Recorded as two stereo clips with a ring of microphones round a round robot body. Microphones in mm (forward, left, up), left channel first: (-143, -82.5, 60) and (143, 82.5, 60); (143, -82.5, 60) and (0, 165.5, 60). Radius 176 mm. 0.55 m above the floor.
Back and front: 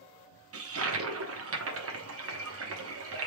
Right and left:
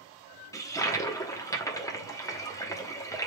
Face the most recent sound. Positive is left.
turn(degrees=15)